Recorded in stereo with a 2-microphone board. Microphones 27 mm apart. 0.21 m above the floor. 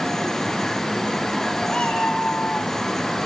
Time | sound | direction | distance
1.7 | a cat meowing | 40° left (ahead or behind) | 3.5 m